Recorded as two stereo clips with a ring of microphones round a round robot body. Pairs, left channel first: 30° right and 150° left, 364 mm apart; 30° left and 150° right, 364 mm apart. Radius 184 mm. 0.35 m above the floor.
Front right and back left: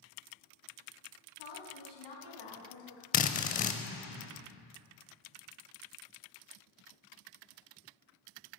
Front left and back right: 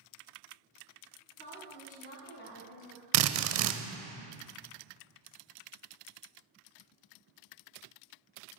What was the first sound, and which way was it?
A woman speaking, 45° right.